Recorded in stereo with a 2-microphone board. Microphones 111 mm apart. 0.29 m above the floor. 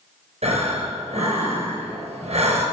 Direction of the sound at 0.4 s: 75° right (ahead or behind).